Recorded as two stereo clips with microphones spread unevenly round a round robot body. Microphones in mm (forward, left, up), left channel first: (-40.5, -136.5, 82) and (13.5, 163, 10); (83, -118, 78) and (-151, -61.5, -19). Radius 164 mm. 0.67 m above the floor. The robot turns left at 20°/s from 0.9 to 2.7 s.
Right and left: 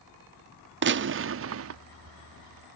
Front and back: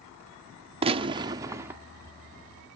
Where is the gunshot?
115° left; by 1.8 s 100° left.